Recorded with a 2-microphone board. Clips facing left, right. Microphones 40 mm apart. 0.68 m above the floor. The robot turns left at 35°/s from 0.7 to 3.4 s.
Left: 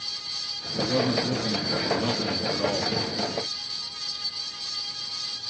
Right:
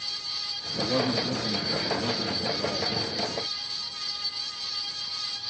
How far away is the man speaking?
About 1.3 m.